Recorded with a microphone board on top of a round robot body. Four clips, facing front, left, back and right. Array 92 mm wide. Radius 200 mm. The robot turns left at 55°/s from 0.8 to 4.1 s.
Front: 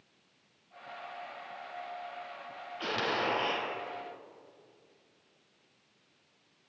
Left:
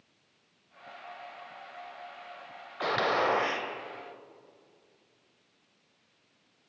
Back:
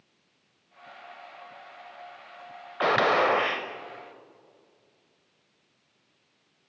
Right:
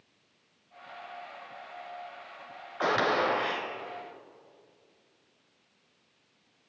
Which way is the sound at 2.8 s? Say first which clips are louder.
Right 1 dB, back 10 dB; 160° right.